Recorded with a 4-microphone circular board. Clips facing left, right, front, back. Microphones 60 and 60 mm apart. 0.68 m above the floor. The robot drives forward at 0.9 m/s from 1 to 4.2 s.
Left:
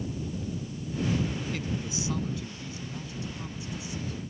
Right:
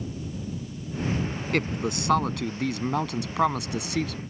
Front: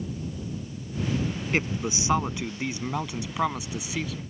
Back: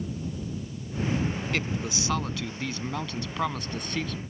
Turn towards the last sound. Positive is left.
turn(degrees=-85)